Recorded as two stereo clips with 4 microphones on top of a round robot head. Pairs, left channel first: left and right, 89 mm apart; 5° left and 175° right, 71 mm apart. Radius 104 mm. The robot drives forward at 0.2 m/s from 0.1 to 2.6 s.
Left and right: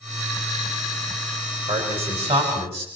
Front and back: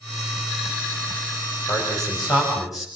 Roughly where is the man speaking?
Right.